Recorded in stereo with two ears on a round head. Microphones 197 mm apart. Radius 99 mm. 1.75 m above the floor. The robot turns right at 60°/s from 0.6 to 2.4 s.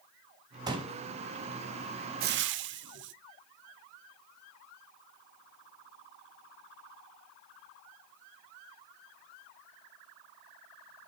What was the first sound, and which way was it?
A pop, 20° right (ahead or behind).